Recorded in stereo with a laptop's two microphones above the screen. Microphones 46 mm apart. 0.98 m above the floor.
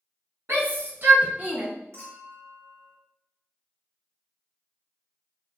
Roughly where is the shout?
Right.